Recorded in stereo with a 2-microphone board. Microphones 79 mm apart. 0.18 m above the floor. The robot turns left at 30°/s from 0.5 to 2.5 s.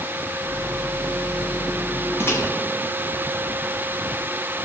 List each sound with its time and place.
2.2 s a microwave: 35° left (ahead or behind), 1.0 m